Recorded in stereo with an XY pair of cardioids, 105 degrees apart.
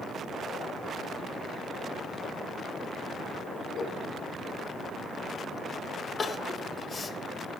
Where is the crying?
40° left, 0.7 m.